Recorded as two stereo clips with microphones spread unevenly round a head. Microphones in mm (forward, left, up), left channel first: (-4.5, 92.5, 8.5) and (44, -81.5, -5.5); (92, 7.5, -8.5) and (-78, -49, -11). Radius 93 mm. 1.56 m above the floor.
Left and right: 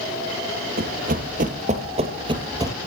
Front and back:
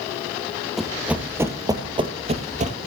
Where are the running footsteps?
70° right, 2 m; by 2.8 s 145° right, 2 m.